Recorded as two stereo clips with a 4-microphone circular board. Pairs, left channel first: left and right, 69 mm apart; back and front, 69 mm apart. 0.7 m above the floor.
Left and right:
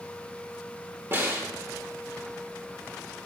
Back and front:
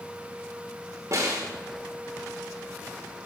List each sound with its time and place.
1.1 s a snare drum: 35° right, 2 m